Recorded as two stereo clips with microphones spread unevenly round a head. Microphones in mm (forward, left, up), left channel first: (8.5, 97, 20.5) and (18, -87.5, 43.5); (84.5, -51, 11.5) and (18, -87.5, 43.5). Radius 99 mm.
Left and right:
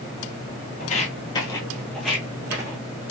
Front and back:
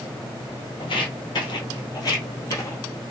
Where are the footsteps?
70° left, 1.3 m; by 2.8 s 30° right, 1.5 m.